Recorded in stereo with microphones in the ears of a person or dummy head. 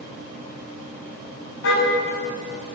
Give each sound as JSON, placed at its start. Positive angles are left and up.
{"t": 1.6, "sound": "a car horn", "side_deg": 70, "distance_m": 6.0}